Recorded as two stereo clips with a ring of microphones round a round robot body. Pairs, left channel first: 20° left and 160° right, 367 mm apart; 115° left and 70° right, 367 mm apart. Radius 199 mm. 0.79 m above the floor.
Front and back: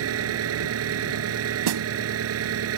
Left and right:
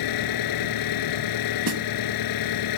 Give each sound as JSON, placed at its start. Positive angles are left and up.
{"t": 0.0, "sound": "an engine running", "azimuth_deg": 150}
{"t": 1.7, "sound": "a snare drum", "azimuth_deg": -120}